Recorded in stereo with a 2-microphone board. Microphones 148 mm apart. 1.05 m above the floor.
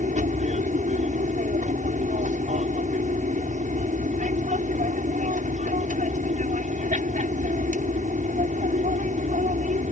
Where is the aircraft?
60° right (ahead or behind).